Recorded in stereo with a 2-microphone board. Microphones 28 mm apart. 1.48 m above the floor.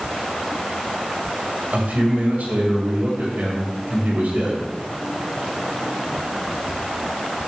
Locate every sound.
1.7 s a man speaking: 80° right, 5.5 m